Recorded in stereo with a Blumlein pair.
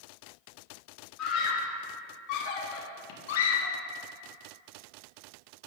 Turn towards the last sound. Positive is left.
turn(degrees=65)